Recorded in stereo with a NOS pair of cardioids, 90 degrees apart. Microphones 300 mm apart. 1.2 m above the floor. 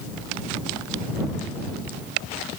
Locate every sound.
Only background noise.